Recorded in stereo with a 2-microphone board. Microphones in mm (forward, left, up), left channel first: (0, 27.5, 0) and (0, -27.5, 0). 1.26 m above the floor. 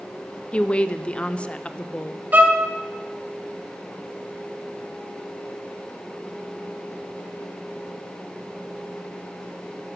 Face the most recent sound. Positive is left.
turn(degrees=-35)  # may be behind; listen again after turning